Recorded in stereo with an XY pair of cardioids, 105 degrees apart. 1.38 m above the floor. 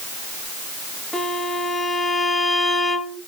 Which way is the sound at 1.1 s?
30° left.